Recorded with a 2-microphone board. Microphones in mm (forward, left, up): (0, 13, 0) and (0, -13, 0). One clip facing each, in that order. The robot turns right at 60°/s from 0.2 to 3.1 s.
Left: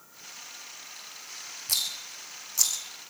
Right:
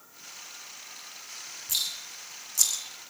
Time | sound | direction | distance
1.7 | a rattle | 65° left (ahead or behind) | 2.5 m